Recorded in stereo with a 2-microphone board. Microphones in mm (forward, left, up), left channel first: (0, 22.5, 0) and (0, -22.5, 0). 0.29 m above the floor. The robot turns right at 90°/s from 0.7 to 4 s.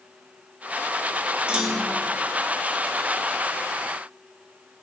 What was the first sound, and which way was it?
A clunk, 30° right.